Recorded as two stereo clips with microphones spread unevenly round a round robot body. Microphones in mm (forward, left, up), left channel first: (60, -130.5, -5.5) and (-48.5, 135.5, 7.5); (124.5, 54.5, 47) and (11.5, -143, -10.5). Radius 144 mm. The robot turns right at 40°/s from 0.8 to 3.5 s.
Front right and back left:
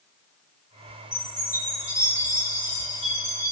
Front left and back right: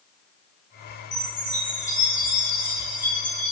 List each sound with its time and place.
1.1 s a chime: 75° left, 1.4 m; by 3.5 s 170° left, 1.4 m